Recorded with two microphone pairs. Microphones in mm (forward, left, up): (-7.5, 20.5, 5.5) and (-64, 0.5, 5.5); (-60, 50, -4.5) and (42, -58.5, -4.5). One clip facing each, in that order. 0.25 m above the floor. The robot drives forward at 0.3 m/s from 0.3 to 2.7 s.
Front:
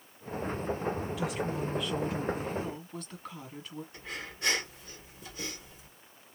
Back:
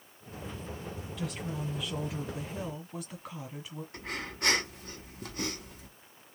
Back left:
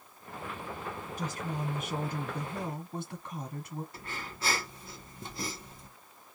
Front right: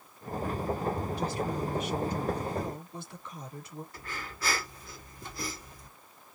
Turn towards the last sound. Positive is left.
turn(degrees=-165)